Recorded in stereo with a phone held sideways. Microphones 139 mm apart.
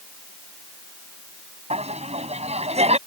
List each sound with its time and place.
1.7 s laughter: 50° right (ahead or behind)